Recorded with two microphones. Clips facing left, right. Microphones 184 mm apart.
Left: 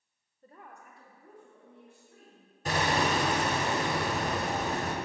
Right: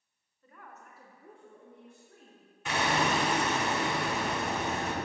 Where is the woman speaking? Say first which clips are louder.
Left 1 dB; 40° left (ahead or behind), 0.7 m; by 3.6 s 60° right (ahead or behind), 2.5 m.